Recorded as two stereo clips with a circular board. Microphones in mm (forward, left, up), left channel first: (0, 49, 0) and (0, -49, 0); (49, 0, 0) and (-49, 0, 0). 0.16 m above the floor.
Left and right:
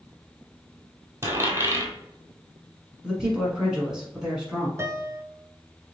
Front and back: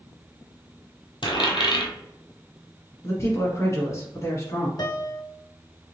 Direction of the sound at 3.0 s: 15° right.